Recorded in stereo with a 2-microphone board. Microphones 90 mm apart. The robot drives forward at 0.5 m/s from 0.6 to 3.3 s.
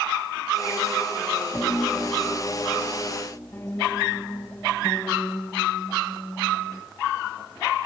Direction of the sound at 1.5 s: 30° left (ahead or behind).